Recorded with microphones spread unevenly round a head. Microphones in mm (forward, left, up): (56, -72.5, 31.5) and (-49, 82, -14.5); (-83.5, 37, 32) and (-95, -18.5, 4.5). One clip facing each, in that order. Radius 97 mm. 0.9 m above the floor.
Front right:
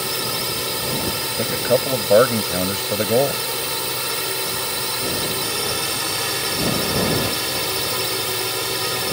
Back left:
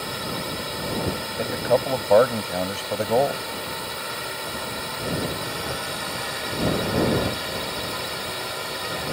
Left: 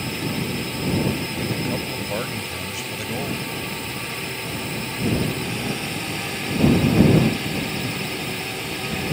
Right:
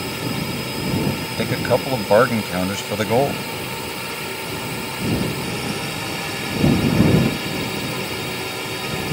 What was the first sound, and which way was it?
A drone, 25° right.